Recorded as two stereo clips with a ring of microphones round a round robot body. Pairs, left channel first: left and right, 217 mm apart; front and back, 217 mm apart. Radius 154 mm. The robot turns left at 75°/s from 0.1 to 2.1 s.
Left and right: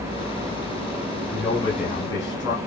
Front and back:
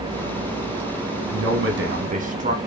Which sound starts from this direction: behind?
A man speaking, at 1.3 s.